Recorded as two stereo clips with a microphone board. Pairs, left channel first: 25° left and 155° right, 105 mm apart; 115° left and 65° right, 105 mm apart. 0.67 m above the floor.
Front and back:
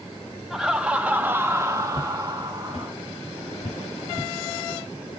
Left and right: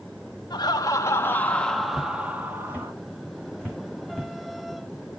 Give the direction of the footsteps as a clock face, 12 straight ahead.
11 o'clock.